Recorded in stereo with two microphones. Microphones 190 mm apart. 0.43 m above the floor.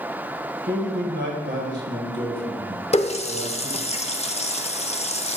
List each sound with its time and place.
0.7 s a man speaking: 70° right (ahead or behind), 2 m
2.9 s a running tap: 35° left (ahead or behind), 0.6 m